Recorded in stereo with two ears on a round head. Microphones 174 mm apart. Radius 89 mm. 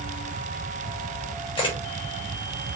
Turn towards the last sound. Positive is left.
turn(degrees=25)  # may be behind; listen again after turning